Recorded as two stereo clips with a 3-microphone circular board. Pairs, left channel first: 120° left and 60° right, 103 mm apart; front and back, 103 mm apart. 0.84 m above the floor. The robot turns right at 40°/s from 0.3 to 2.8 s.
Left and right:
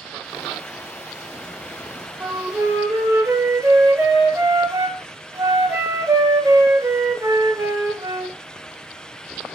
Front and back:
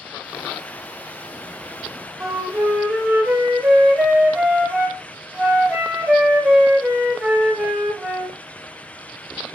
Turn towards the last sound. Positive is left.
turn(degrees=-105)